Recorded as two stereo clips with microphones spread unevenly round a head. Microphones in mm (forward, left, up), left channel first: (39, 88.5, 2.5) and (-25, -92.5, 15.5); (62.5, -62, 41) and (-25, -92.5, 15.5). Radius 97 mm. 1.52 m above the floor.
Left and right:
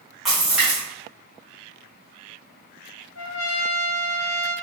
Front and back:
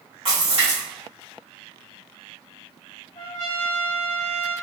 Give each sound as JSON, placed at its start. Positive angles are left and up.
{"t": 0.2, "sound": "a splash", "azimuth_deg": 160, "distance_m": 1.3}
{"t": 3.1, "sound": "a trumpet", "azimuth_deg": 80, "distance_m": 0.5}